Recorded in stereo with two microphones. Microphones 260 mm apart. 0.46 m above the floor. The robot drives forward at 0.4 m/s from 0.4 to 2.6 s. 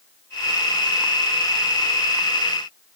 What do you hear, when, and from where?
Only background noise.